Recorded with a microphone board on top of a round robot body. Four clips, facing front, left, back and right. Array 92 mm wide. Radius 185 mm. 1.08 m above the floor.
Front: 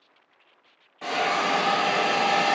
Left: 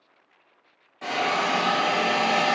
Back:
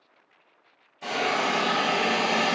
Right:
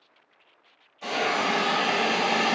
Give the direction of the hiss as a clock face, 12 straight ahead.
11 o'clock.